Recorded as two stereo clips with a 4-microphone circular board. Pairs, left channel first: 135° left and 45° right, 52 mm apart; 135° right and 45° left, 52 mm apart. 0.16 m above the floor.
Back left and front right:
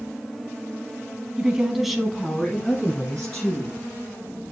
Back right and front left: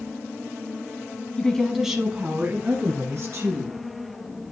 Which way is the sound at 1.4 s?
90° right.